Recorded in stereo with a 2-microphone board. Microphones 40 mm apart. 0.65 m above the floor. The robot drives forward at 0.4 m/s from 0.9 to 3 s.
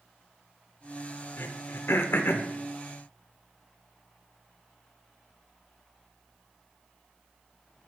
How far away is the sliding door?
No sliding door in this recording.